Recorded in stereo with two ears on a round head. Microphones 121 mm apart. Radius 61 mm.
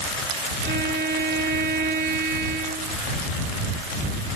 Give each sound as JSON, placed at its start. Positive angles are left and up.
{"t": 0.6, "sound": "a violin", "side_deg": -70}